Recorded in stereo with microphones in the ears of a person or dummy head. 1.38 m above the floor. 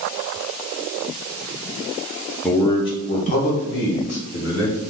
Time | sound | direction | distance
2.4 | a man speaking | 10° left (ahead or behind) | 0.5 m